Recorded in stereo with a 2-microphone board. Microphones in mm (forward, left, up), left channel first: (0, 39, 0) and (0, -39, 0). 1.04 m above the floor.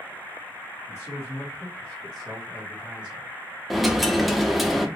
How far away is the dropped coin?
About 0.5 m.